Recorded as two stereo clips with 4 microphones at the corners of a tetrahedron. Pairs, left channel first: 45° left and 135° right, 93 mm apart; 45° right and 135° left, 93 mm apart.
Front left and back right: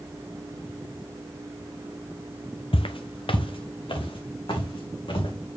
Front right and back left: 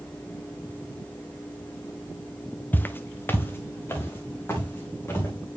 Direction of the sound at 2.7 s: 25° left.